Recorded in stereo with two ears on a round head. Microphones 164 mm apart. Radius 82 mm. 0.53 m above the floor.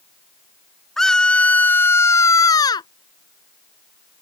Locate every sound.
1.0 s a scream: centre (ahead or behind); by 2.9 s 25° left (ahead or behind)